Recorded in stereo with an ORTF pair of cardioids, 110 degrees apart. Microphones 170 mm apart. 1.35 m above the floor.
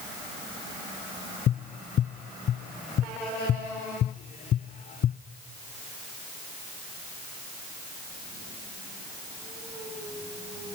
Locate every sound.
1.5 s tapping: 50° left, 0.6 m